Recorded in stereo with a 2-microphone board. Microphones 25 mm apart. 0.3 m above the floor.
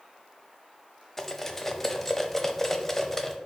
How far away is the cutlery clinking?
About 0.8 m.